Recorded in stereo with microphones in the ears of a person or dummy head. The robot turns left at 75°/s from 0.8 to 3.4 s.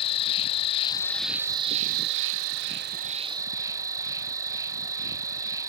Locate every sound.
0.0 s an insect: 35° left; by 5.7 s 160° right